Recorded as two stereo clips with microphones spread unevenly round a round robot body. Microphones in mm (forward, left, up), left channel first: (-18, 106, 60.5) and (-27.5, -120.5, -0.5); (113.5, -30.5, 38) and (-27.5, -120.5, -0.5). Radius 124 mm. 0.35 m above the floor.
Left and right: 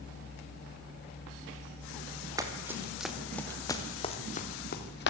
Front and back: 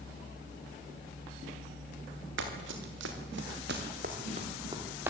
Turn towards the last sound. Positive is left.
turn(degrees=130)